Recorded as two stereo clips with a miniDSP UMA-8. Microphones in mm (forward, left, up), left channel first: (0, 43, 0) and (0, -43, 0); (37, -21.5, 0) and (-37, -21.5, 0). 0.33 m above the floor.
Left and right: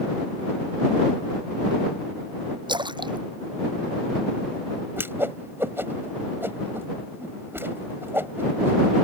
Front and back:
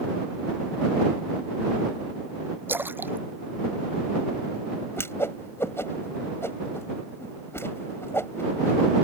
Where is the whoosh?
40° right.